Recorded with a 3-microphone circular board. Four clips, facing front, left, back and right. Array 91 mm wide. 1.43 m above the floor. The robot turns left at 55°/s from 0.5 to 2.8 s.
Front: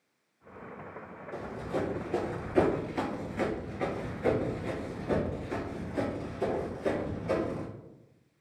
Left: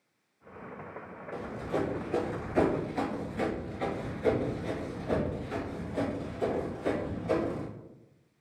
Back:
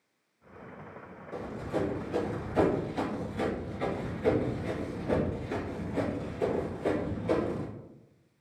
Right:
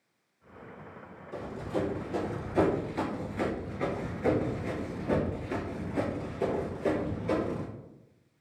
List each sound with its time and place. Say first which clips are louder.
1.3 s running footsteps: left 1 dB, back 1 dB; 105° left, 2.0 m; by 7.7 s 120° right, 2.5 m